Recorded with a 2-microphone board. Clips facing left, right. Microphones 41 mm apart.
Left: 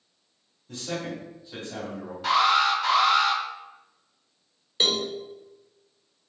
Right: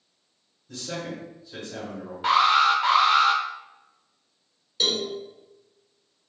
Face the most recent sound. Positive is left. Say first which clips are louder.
# left 1 dB
turn(degrees=35)  # may be behind; listen again after turning